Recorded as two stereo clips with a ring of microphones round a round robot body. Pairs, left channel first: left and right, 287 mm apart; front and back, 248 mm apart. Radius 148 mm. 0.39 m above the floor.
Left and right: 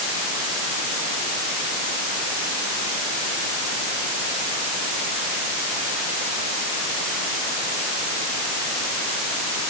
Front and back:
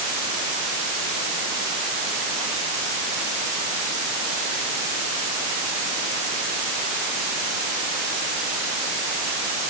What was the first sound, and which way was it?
Only background noise.